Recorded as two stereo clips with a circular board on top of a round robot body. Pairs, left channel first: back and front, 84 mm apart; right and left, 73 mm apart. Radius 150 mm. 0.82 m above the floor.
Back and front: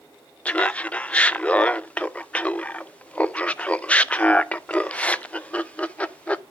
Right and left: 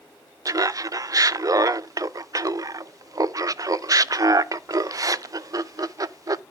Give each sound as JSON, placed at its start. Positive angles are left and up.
{"t": 0.5, "sound": "laughter", "azimuth_deg": 110, "distance_m": 0.6}